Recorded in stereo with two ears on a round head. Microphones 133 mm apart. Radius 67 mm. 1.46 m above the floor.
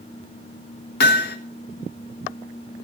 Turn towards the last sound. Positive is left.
turn(degrees=65)  # may be behind; listen again after turning